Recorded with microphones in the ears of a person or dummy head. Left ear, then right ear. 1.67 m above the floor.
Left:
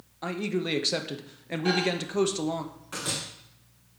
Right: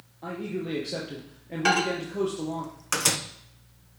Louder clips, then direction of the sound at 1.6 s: Right 3 dB; 60° right (ahead or behind).